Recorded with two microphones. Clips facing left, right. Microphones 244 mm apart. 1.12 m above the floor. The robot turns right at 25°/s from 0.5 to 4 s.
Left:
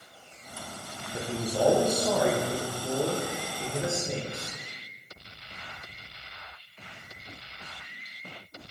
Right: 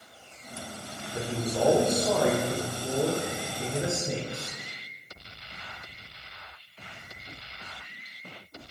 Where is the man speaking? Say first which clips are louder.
Even; 145° left, 0.8 m; by 4.6 s 140° right, 0.8 m.